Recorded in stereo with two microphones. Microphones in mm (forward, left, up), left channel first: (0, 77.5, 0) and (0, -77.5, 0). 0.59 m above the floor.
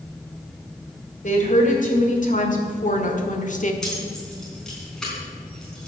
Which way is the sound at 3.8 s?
5° left (ahead or behind).